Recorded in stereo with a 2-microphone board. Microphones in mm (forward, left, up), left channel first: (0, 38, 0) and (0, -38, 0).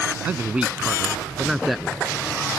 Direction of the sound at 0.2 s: 20° right (ahead or behind).